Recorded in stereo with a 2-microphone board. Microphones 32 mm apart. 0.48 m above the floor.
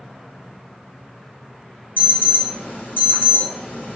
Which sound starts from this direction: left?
An alarm, at 2.0 s.